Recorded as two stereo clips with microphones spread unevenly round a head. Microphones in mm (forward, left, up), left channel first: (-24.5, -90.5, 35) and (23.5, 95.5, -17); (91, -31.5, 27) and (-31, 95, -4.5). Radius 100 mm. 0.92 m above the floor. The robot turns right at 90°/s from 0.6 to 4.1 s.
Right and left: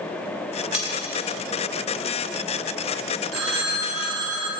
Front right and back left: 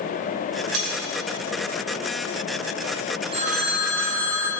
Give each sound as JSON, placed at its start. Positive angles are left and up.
{"t": 0.7, "sound": "cutlery clinking", "azimuth_deg": 160, "distance_m": 2.5}
{"t": 3.3, "sound": "a phone ringing", "azimuth_deg": 75, "distance_m": 1.6}